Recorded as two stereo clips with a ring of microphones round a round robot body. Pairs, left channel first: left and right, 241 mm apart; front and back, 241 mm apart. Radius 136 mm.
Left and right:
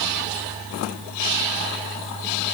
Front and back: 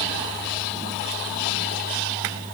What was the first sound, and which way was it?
Only background noise.